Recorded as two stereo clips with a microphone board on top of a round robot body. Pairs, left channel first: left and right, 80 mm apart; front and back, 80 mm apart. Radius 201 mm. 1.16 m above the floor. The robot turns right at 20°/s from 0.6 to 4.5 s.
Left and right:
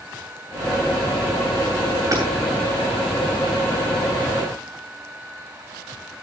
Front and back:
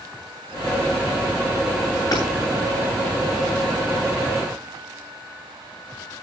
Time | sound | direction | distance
2.1 | hammering | 40° right | 8.5 m